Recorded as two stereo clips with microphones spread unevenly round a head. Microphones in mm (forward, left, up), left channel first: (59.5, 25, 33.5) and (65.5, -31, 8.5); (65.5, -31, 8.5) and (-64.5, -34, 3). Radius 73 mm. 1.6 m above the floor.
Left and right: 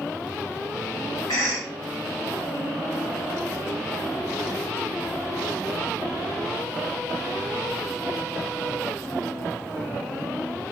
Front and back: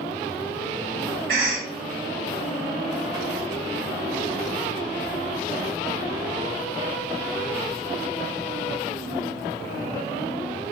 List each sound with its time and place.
1.3 s a cough: 150° left, 2.0 m